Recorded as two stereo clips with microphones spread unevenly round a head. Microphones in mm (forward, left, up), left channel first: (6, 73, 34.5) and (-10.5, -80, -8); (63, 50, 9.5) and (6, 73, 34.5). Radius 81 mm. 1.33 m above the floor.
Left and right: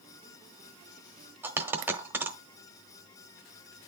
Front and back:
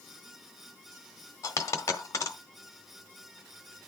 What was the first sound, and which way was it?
A dropped coin, straight ahead.